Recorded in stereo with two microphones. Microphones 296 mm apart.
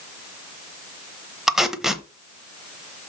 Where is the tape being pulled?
Centre (ahead or behind), 0.8 m.